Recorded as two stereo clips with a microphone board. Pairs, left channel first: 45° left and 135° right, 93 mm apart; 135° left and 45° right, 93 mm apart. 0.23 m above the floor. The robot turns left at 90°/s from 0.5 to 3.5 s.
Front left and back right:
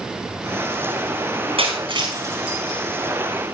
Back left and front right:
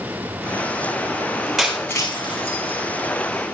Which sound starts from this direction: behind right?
Breaking glass, at 1.6 s.